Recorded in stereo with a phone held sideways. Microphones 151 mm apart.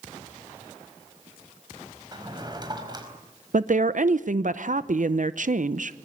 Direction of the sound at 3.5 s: 65° right (ahead or behind).